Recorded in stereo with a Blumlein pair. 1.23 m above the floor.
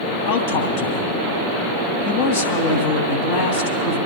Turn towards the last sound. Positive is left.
turn(degrees=50)